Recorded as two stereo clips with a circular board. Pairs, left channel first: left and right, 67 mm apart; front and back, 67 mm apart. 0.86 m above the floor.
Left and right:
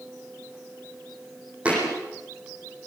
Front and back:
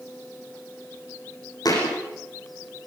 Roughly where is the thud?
Ahead.